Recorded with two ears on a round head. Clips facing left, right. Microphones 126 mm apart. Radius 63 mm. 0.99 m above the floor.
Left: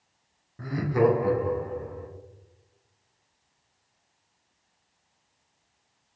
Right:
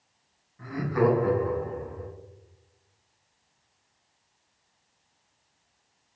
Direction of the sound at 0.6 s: 55° left (ahead or behind).